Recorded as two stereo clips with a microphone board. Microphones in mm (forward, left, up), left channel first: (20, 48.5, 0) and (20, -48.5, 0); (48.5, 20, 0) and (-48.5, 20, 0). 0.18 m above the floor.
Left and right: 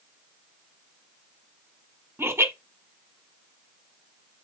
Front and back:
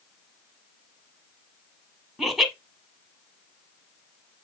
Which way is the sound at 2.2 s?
95° right.